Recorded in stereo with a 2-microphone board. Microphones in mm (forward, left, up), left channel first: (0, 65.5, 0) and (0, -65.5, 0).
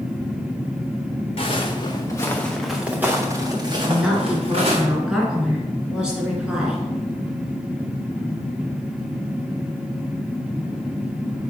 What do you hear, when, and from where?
1.4 s footsteps: 50° left (ahead or behind), 1.6 m; by 4.8 s 55° right (ahead or behind), 2.5 m
3.8 s a woman speaking: 5° right (ahead or behind), 2.0 m